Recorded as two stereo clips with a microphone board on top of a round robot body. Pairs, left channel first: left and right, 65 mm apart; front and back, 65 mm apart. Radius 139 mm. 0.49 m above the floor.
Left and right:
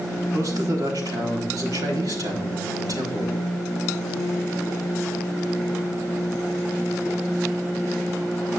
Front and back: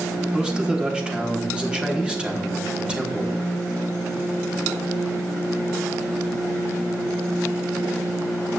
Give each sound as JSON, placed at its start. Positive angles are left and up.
{"t": 0.3, "sound": "a man speaking", "azimuth_deg": -105, "distance_m": 3.5}